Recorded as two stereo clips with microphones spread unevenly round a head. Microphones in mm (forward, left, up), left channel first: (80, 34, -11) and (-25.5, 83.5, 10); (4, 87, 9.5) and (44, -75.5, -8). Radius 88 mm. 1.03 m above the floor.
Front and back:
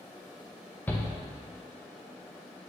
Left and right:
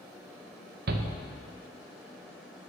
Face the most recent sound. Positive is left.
turn(degrees=-100)